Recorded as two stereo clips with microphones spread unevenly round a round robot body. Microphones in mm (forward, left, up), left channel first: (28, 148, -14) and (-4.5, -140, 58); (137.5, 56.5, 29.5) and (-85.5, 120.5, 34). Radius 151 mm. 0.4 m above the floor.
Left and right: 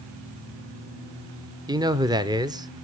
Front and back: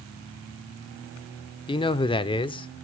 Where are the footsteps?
I don't hear footsteps.